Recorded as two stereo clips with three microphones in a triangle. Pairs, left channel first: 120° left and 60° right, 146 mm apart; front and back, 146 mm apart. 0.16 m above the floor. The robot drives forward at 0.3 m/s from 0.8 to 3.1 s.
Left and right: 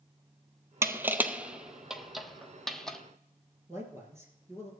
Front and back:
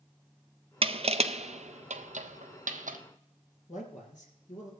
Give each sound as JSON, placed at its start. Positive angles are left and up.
{"t": 0.8, "sound": "crushing", "azimuth_deg": -130, "distance_m": 0.7}
{"t": 3.7, "sound": "a man speaking", "azimuth_deg": 10, "distance_m": 3.5}